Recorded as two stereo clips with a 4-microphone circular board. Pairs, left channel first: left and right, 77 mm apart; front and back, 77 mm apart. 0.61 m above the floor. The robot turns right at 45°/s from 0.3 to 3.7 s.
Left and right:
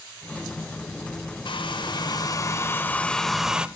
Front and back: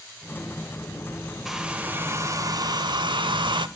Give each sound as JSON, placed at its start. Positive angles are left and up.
{"t": 1.4, "sound": "a hair dryer", "azimuth_deg": 95, "distance_m": 0.6}